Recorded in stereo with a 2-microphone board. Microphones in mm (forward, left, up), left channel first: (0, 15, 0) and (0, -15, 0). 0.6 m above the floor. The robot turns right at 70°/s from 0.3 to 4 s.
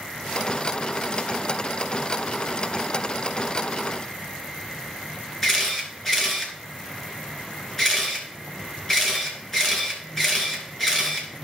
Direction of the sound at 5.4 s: 15° left (ahead or behind).